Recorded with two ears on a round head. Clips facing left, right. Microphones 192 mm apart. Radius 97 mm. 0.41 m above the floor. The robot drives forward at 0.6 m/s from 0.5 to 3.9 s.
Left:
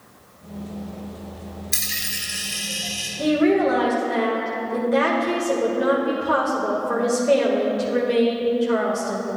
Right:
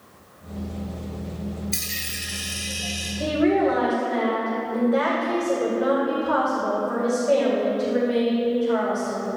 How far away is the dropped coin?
About 1.3 m.